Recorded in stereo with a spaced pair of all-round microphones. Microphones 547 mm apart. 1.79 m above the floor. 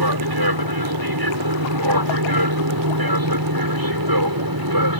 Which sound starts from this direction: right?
An aircraft, at 0.0 s.